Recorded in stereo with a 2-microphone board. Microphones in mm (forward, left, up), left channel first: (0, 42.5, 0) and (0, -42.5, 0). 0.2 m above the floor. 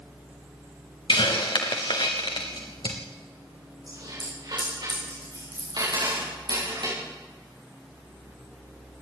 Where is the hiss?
70° left (ahead or behind), 3 m.